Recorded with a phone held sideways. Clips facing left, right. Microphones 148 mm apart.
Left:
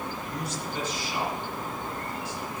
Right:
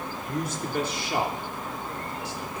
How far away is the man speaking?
About 3.5 m.